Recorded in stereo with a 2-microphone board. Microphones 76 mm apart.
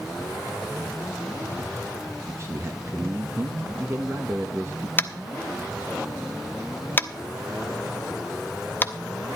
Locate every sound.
2.3 s a man speaking: 35° right (ahead or behind), 1.1 m
5.0 s tapping: 25° left (ahead or behind), 0.6 m